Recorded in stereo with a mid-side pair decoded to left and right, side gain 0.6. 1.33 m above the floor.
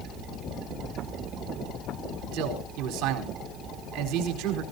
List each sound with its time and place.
2.3 s a man speaking: 65° right, 4 m